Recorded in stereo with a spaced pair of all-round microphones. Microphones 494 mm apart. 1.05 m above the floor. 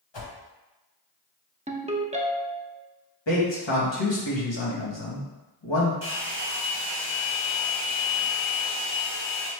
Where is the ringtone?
15° right (ahead or behind), 0.7 m.